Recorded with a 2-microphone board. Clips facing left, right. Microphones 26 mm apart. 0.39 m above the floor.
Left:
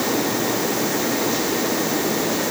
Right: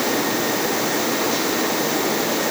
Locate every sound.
Only background noise.